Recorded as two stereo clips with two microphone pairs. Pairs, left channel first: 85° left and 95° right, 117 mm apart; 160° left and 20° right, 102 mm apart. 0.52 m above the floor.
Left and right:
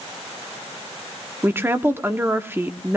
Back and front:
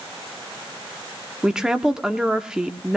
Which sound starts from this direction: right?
A woman speaking, at 1.4 s.